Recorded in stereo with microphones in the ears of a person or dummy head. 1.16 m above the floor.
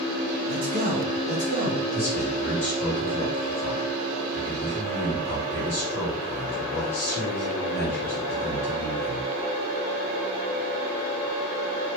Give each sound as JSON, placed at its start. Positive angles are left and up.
{"t": 0.5, "sound": "a man speaking", "side_deg": -40, "distance_m": 0.8}
{"t": 1.9, "sound": "a man speaking", "side_deg": 45, "distance_m": 1.9}